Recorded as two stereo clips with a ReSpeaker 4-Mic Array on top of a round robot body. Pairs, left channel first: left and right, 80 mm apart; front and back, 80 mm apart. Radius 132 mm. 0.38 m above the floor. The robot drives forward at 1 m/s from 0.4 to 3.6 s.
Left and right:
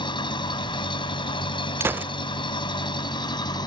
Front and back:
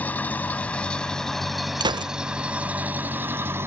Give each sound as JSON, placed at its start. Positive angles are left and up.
{"t": 0.0, "sound": "an engine running", "azimuth_deg": 70}
{"t": 1.8, "sound": "a gunshot", "azimuth_deg": -150}